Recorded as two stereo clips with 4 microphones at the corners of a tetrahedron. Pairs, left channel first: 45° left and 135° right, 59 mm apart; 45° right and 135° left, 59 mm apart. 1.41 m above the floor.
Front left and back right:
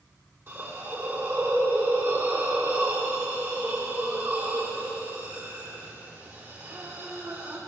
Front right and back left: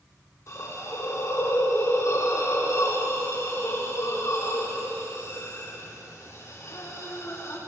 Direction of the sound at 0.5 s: 90° right.